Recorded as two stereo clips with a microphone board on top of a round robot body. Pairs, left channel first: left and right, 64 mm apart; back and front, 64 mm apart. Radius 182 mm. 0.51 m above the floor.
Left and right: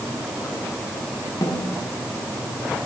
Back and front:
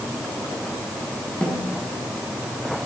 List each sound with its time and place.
1.4 s a snare drum: 105° left, 4 m